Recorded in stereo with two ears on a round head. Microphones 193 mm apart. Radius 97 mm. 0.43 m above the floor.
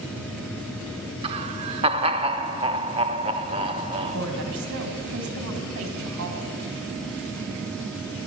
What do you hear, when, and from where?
1.2 s laughter: 25° right (ahead or behind), 0.9 m
4.1 s a woman speaking: 70° right (ahead or behind), 3 m